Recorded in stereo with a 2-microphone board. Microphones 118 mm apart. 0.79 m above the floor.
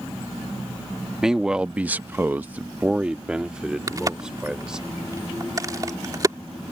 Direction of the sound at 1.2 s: 5° right (ahead or behind).